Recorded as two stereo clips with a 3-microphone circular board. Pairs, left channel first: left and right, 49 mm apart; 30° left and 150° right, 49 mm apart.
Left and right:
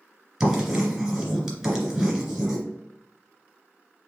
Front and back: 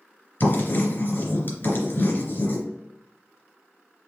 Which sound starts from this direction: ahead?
Writing, at 0.4 s.